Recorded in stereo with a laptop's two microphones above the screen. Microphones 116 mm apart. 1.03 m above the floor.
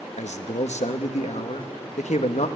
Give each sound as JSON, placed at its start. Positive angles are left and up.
{"t": 0.2, "sound": "a man speaking", "side_deg": 80, "distance_m": 1.0}